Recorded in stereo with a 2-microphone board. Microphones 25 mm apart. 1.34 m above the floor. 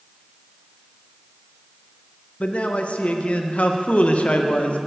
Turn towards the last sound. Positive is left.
turn(degrees=65)  # may be behind; listen again after turning